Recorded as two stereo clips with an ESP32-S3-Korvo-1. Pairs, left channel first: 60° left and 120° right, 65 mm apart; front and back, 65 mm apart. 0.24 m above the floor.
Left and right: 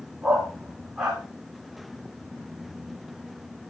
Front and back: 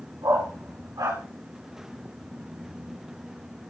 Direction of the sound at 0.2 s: 165° left.